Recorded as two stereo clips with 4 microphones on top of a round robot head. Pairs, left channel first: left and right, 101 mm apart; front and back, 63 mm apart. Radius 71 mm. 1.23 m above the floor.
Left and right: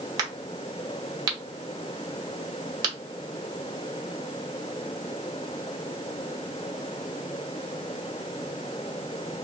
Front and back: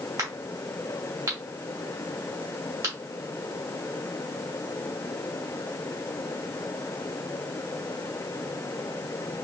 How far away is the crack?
About 1.0 m.